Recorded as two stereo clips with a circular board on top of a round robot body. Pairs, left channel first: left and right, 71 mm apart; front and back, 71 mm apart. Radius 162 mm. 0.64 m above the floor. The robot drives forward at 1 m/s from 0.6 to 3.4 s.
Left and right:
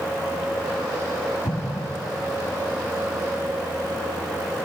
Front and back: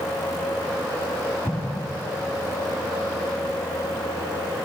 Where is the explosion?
50° left, 2.5 m; by 1.9 s 60° left, 2 m.